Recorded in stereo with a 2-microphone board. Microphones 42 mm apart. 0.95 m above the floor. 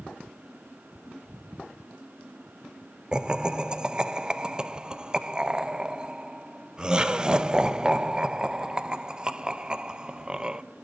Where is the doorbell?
I don't hear a doorbell.